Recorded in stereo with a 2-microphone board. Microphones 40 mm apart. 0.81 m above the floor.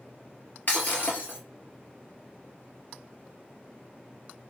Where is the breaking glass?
55° left (ahead or behind), 1.7 m.